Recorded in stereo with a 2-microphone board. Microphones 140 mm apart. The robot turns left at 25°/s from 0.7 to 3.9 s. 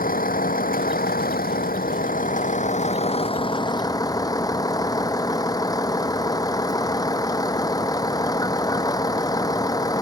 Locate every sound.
0.0 s a vehicle: 105° left; by 10.0 s 25° left